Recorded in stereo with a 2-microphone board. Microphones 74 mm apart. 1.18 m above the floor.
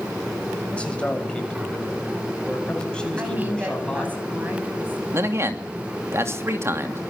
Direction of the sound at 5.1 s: 35° right (ahead or behind).